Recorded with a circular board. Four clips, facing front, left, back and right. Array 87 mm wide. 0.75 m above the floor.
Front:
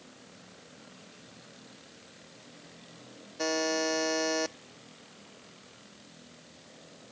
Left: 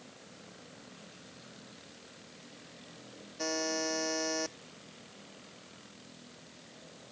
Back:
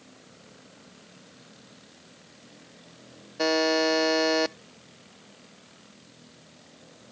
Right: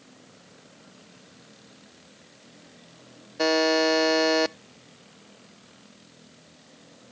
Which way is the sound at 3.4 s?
115° right.